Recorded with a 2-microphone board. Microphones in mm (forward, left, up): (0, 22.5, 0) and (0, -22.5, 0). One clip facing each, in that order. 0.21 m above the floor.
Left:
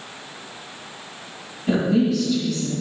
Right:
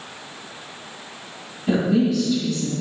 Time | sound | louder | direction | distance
1.7 | a woman speaking | even | 5° right (ahead or behind) | 1.8 m